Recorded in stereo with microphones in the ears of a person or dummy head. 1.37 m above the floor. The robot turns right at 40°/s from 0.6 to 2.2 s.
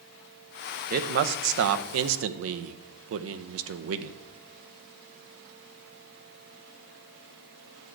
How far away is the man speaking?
About 0.8 m.